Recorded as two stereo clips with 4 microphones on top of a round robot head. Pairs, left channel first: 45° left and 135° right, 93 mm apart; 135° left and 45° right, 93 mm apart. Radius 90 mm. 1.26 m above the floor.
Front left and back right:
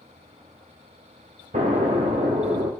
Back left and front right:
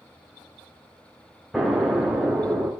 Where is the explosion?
130° right, 1.4 m.